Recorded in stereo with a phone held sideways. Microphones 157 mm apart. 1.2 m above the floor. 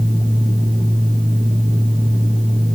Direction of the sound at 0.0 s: 5° right (ahead or behind).